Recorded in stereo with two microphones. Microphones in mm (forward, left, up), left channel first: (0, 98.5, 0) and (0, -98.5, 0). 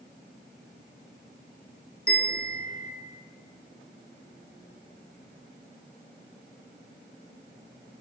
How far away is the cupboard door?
I don't hear a cupboard door.